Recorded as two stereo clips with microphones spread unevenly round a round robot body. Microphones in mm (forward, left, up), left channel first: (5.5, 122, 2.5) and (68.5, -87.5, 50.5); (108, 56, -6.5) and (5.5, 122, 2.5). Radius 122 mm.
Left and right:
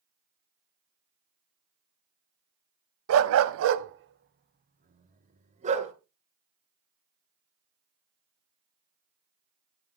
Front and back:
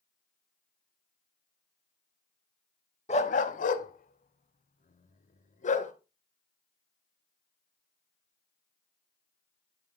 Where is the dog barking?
90° right, 0.7 m; by 5.9 s 15° right, 2 m.